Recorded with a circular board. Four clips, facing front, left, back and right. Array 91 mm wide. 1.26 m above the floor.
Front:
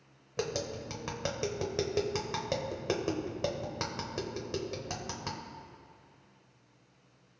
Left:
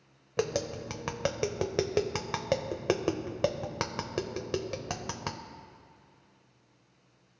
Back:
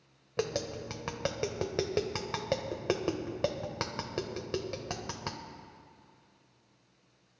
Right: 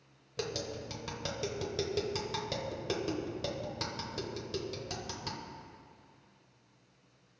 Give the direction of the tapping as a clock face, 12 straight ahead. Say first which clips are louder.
Left 7 dB, back 1 dB; 9 o'clock.